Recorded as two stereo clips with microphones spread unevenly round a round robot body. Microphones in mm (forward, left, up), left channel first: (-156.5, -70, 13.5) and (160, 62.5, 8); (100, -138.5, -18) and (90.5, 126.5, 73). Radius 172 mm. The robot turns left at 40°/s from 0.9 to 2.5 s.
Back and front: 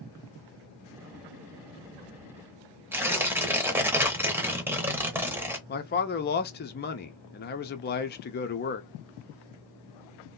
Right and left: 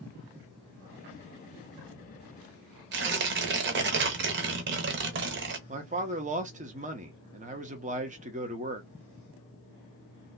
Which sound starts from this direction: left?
Tearing paper, at 2.9 s.